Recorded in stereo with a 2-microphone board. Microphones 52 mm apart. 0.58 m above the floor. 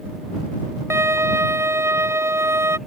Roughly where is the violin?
Right.